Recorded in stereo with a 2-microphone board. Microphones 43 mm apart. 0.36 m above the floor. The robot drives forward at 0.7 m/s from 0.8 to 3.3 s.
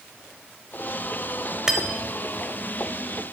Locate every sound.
1.7 s cutlery clinking: 15° right (ahead or behind), 0.7 m; by 2.2 s 10° right (ahead or behind), 1.0 m